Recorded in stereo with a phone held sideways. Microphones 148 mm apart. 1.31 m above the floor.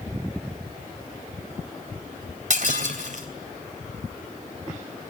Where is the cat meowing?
No cat meowing in this recording.